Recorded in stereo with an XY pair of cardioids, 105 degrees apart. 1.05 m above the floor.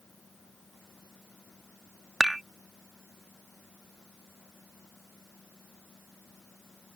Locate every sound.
0.0 s a fan: 25° left
2.2 s dishes clattering: 5° right